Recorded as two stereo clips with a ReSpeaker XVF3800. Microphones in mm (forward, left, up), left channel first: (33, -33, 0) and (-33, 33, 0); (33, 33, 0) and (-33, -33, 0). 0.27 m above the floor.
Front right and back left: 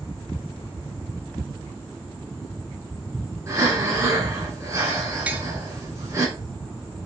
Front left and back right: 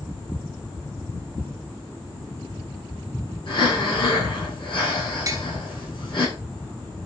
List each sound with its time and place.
3.5 s breathing: 80° left, 7 m
5.3 s tapping: 155° right, 1.5 m